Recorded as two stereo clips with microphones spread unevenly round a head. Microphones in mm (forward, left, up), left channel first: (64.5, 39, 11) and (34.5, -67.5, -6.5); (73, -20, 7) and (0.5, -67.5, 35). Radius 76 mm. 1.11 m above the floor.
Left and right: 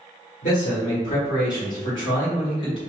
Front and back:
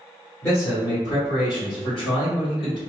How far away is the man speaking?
About 1.2 m.